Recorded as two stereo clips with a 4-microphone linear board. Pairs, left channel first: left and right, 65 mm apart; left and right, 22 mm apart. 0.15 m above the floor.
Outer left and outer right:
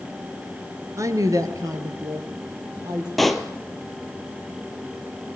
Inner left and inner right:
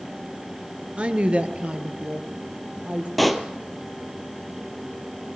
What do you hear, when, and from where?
1.0 s a woman speaking: 55° right (ahead or behind), 2.5 m; by 3.1 s 70° right (ahead or behind), 4.5 m
3.2 s a pop: centre (ahead or behind), 1.7 m